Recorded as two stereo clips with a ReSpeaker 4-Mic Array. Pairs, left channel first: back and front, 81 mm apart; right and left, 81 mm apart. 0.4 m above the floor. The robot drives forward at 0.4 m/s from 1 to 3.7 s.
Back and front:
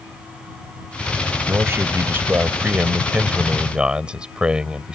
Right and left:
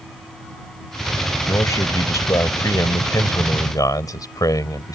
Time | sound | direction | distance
1.5 | a man speaking | 50° right | ?